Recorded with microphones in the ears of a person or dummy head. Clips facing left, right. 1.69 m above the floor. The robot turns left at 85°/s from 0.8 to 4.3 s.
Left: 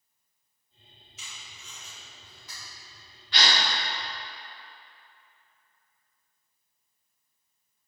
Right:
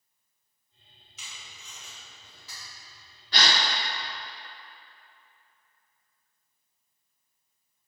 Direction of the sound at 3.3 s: 40° right (ahead or behind).